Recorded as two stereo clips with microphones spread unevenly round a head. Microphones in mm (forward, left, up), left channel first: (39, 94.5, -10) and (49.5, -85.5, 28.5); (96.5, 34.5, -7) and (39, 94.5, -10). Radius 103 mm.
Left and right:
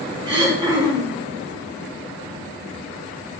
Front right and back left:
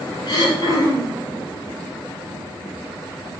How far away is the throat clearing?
About 6 m.